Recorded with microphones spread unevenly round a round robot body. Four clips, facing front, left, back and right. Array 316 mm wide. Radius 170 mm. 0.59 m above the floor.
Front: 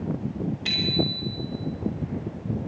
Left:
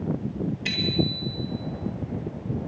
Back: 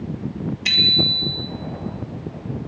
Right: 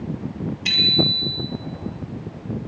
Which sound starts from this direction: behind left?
A bicycle bell, at 0.7 s.